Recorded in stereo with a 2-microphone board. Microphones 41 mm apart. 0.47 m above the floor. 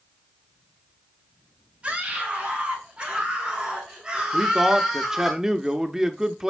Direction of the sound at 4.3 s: 15° right (ahead or behind).